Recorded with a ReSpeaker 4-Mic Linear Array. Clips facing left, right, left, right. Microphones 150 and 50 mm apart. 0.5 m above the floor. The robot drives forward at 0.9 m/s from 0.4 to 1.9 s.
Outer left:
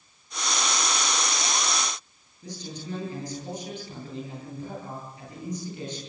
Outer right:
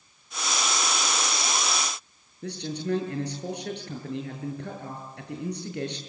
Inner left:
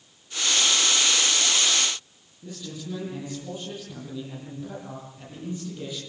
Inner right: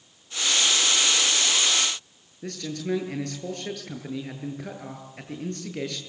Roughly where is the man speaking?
Right.